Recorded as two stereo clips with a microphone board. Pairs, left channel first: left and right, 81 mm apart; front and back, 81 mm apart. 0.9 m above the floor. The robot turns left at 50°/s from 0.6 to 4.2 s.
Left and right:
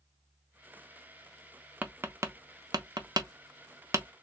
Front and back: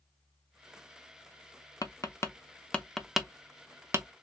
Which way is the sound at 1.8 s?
25° right.